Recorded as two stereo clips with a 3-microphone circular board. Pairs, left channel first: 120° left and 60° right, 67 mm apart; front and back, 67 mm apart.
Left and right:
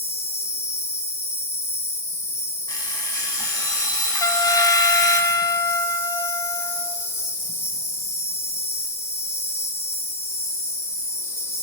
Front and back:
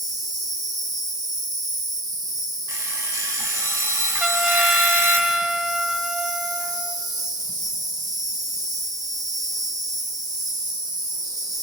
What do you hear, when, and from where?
0.0 s an insect: 170° left, 3 m
2.7 s an alarm clock: 140° left, 4.5 m
4.2 s a trumpet: 100° left, 0.9 m